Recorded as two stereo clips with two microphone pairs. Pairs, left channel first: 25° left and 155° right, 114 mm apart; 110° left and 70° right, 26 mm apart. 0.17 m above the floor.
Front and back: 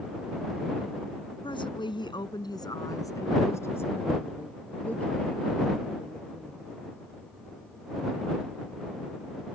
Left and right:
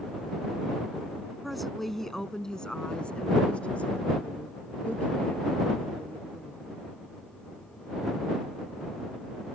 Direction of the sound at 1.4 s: 15° left.